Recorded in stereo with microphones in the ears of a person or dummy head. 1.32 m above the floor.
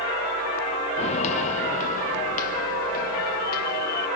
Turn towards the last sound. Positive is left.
turn(degrees=55)  # may be behind; listen again after turning